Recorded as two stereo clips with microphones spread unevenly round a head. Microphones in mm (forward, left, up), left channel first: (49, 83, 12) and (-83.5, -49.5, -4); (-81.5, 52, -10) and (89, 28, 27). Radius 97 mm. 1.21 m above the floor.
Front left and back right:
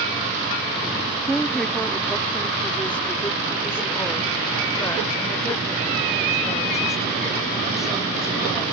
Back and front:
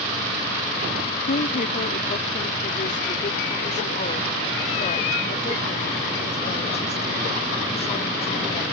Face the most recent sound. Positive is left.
turn(degrees=115)